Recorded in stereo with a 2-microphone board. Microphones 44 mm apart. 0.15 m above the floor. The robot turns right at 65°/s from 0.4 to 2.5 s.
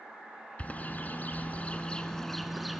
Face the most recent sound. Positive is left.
turn(degrees=0)  # may be behind; listen again after turning